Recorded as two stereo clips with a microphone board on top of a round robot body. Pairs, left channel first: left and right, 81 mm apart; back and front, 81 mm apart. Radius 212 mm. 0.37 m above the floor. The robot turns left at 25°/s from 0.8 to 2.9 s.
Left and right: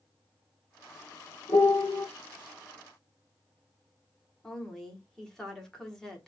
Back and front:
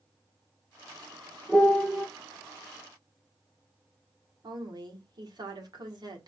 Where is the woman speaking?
5° left, 1.9 m.